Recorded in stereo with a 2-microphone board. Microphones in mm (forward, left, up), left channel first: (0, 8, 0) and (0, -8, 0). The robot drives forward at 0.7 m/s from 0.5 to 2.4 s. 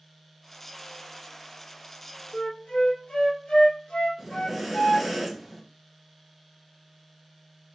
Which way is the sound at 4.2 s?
5° right (ahead or behind).